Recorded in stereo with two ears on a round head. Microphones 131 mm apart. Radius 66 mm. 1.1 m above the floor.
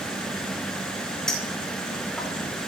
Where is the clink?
5° left (ahead or behind), 4.5 m.